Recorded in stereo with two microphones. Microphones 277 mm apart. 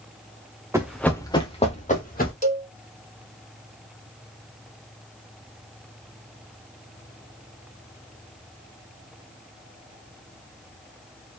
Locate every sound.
0.7 s running footsteps: 10° right (ahead or behind), 0.8 m; by 2.3 s 30° left (ahead or behind), 2 m
2.4 s a cowbell: 25° left (ahead or behind), 0.8 m